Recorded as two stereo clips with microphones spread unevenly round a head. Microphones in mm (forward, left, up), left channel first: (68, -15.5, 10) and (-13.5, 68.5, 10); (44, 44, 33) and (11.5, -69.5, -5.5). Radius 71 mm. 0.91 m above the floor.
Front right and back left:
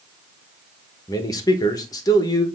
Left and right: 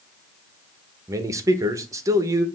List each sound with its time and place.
1.1 s a man speaking: 90° right, 1.1 m